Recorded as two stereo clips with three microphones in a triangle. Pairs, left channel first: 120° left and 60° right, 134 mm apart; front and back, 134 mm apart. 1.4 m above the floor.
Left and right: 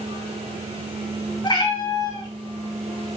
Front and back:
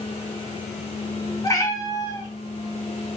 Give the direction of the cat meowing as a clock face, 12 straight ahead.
10 o'clock.